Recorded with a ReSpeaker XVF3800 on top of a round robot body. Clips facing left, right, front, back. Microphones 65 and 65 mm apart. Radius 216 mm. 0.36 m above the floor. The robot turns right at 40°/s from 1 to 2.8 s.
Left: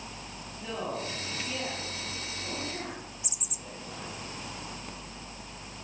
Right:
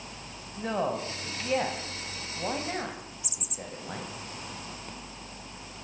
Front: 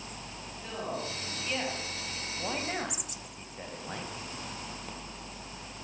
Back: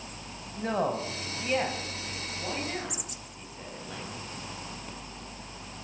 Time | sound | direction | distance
0.6 | a man speaking | 135° right | 4 m